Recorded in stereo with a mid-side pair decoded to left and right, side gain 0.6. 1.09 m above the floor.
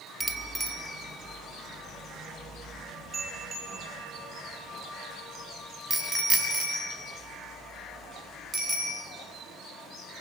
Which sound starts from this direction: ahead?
A bicycle bell, at 0.2 s.